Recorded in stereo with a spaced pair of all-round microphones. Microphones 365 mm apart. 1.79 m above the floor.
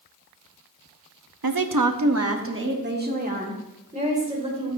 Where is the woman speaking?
75° right (ahead or behind), 0.7 m; by 4.8 s 15° right (ahead or behind), 3 m.